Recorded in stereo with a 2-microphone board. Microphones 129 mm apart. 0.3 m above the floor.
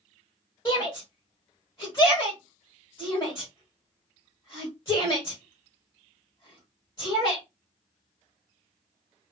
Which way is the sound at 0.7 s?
25° left (ahead or behind).